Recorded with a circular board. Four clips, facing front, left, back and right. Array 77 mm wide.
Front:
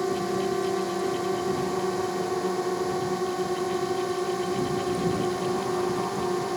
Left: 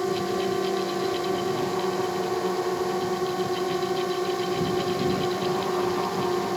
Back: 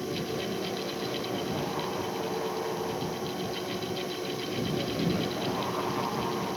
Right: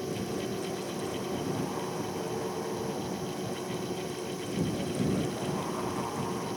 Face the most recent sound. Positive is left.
turn(degrees=55)